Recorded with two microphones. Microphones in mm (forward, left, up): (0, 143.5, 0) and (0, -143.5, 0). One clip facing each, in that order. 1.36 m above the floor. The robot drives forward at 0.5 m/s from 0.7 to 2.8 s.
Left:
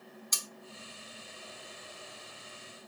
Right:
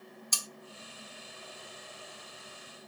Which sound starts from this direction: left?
Cutlery clinking, at 0.3 s.